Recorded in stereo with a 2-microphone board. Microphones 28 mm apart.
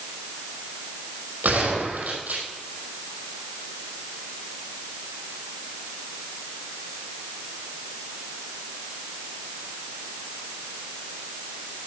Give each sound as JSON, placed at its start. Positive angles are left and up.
{"t": 1.4, "sound": "a gunshot", "side_deg": -85, "distance_m": 5.0}